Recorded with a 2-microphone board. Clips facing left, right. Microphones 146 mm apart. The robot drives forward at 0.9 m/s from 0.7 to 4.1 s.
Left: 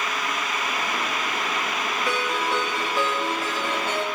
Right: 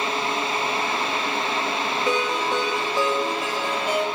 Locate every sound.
2.1 s a ringtone: 20° right (ahead or behind), 1.9 m; by 4.0 s 10° right (ahead or behind), 3.5 m